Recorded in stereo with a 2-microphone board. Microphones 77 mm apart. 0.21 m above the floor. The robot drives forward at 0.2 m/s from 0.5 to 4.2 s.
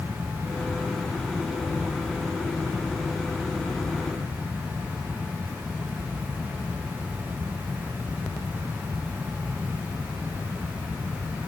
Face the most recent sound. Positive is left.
No sound to turn to.